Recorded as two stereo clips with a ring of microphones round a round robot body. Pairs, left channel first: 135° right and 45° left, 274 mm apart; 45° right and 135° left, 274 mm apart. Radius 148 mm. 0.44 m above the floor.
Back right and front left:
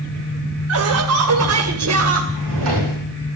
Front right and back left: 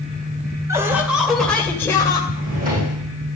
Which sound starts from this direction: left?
A drawer, at 2.3 s.